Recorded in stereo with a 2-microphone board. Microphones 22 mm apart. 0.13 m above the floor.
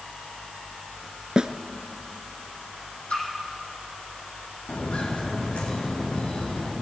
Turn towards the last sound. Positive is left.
turn(degrees=80)